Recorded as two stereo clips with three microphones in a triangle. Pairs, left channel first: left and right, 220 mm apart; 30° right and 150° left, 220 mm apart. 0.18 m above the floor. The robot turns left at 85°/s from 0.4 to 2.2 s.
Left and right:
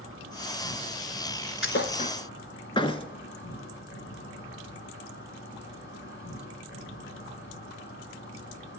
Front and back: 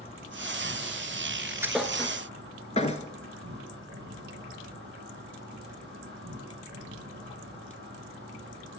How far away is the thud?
About 0.8 m.